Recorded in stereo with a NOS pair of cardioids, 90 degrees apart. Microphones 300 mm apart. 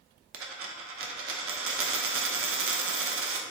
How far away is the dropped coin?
About 0.8 m.